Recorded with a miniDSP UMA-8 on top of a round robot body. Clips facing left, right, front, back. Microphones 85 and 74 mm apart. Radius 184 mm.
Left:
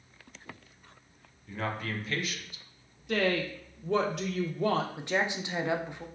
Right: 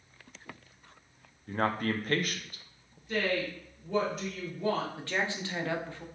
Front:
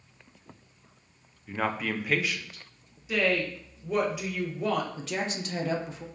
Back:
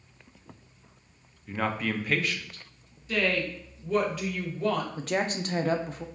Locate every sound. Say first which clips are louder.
1.5 s a man speaking: right 5 dB, even; 85° right, 0.5 m
3.1 s a woman speaking: left 2 dB, front 1 dB; 80° left, 0.6 m
5.0 s a woman speaking: left 3 dB, back 4 dB; 155° left, 0.5 m